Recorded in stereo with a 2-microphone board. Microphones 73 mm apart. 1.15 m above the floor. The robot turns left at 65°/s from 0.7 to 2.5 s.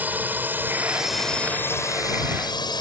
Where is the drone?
25° right (ahead or behind); by 2.8 s 75° left (ahead or behind).